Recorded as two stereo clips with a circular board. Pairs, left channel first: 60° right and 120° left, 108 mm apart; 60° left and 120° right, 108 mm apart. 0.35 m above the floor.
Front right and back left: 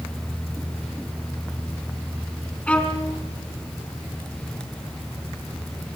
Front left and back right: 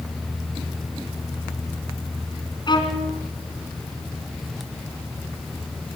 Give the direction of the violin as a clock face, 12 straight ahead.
11 o'clock.